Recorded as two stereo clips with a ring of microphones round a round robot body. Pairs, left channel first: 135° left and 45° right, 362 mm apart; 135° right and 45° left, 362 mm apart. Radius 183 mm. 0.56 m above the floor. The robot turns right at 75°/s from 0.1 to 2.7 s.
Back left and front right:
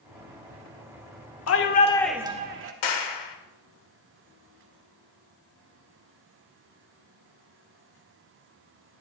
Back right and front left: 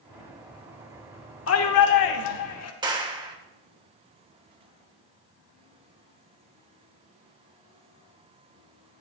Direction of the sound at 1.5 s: 175° left.